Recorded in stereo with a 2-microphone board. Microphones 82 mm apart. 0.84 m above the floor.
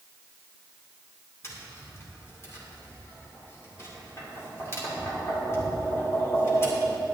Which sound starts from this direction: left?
Tapping, at 1.4 s.